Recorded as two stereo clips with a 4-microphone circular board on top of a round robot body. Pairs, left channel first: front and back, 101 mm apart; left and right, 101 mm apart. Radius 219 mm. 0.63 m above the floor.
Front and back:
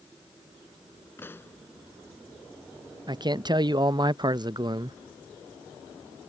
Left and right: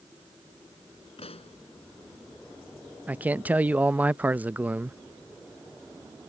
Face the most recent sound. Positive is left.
turn(degrees=-160)